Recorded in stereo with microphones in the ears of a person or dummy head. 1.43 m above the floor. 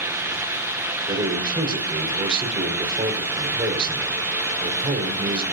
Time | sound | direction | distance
1.1 | a man speaking | 25° right (ahead or behind) | 6 m